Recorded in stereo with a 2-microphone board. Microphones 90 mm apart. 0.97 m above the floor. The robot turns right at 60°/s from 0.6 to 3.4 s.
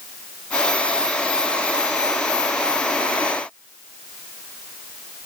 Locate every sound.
Only background noise.